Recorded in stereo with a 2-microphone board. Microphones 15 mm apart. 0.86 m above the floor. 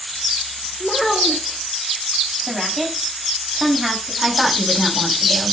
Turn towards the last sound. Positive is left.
turn(degrees=-10)  # may be behind; listen again after turning